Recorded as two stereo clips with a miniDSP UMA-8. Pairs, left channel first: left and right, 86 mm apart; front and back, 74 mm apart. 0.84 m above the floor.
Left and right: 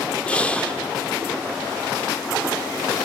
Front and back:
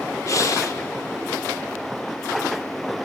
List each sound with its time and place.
0.3 s breathing: 20° left, 0.5 m